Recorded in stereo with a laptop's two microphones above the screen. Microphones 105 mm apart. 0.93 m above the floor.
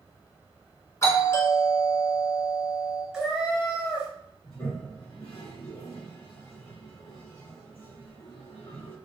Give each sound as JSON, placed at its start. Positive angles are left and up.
{"t": 1.0, "sound": "a doorbell", "side_deg": 30, "distance_m": 1.6}
{"t": 3.1, "sound": "a cat meowing", "side_deg": -5, "distance_m": 0.9}
{"t": 4.5, "sound": "a toilet flushing", "side_deg": 65, "distance_m": 1.4}